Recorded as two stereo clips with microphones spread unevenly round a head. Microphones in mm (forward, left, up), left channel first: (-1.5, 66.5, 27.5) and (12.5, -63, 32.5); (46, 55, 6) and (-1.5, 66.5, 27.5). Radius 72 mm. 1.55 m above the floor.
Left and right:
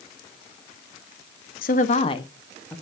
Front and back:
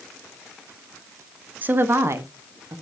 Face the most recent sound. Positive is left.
turn(degrees=180)